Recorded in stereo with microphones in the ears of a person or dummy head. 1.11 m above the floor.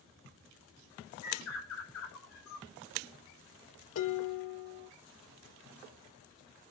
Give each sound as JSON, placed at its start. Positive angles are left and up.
{"t": 1.2, "sound": "a bird", "side_deg": 85, "distance_m": 6.0}
{"t": 4.0, "sound": "dishes clattering", "side_deg": 80, "distance_m": 2.5}